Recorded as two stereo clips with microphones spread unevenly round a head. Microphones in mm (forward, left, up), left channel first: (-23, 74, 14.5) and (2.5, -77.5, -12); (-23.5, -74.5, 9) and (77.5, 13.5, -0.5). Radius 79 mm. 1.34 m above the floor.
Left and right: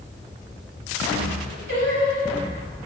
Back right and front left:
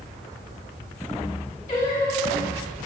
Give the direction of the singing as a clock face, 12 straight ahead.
4 o'clock.